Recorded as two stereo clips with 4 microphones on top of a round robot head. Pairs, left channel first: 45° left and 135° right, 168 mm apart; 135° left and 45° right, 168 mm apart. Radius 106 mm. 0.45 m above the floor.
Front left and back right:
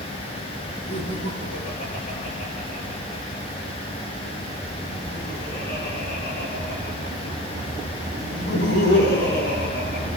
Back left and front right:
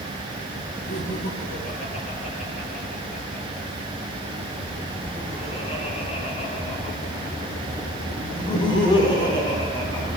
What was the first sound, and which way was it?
Laughter, 100° left.